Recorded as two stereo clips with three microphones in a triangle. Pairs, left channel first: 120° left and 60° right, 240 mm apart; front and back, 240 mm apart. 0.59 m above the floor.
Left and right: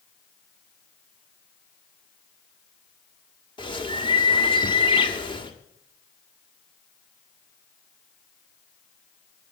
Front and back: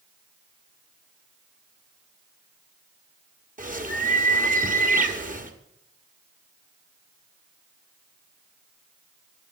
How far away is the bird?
About 1.3 m.